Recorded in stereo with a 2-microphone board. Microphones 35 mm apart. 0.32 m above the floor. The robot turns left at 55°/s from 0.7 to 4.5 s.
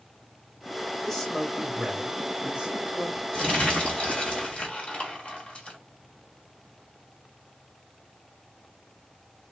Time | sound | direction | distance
1.0 | a man speaking | 20° left | 1.1 m
3.3 | crumpling | 130° left | 1.6 m